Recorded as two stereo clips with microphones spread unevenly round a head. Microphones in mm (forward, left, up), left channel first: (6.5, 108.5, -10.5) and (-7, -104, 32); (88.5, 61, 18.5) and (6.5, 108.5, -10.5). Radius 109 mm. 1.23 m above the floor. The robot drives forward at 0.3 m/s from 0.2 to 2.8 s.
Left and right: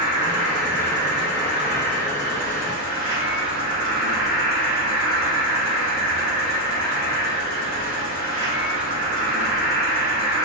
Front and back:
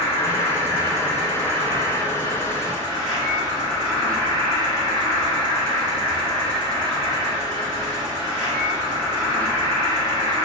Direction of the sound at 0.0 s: 85° right.